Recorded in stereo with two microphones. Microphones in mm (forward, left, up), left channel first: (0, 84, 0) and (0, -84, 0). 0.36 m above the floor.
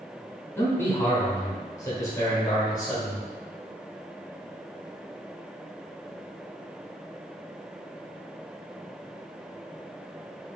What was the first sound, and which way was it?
A man speaking, 15° left (ahead or behind).